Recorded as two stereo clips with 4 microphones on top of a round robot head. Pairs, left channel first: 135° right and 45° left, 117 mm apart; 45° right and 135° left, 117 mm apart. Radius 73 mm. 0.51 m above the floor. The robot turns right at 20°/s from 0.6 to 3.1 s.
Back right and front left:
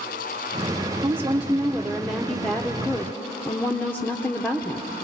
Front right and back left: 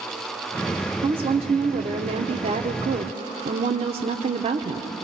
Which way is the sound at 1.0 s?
110° left.